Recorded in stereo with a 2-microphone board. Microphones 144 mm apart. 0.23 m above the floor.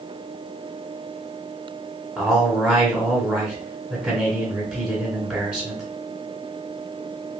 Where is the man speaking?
10° right (ahead or behind), 1.4 m.